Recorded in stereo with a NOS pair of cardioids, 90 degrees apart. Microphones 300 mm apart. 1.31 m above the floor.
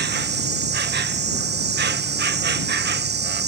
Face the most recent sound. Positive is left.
turn(degrees=-35)